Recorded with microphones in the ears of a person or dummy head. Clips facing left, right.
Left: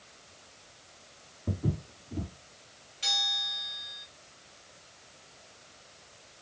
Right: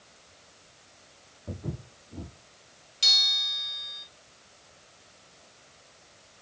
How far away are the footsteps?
About 1.7 m.